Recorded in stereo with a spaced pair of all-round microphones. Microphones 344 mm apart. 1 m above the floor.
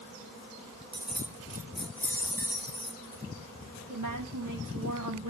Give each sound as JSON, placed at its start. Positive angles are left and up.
{"t": 0.9, "sound": "keys jangling", "side_deg": -15, "distance_m": 0.5}
{"t": 3.9, "sound": "a woman speaking", "side_deg": -60, "distance_m": 2.5}